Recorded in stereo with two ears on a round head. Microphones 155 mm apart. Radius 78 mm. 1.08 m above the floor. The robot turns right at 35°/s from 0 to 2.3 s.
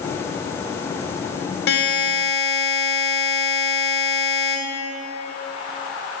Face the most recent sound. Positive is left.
turn(degrees=75)  # may be behind; listen again after turning